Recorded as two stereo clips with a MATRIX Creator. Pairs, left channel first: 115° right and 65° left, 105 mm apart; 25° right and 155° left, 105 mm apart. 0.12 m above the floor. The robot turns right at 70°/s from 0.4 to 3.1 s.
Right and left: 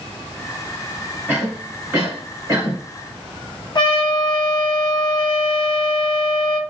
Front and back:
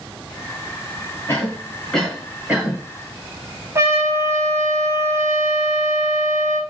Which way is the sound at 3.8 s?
145° right.